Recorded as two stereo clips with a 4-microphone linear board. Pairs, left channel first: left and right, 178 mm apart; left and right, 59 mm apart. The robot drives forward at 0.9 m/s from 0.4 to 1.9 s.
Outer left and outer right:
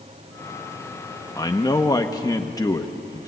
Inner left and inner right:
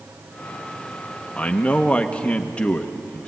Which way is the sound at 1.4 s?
20° left (ahead or behind).